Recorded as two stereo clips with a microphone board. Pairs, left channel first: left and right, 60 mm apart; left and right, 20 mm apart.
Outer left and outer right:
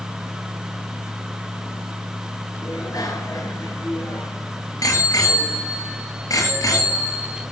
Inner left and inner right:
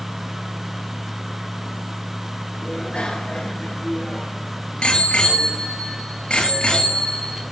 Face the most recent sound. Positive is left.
turn(degrees=75)  # may be behind; listen again after turning